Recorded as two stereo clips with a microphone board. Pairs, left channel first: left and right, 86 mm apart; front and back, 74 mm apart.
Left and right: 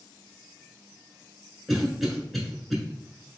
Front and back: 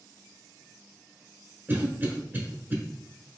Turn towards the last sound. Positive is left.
turn(degrees=-175)